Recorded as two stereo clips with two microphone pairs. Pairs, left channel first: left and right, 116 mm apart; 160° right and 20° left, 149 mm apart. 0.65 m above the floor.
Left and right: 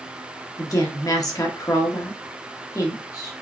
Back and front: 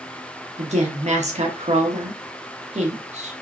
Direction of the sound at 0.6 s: 40° left.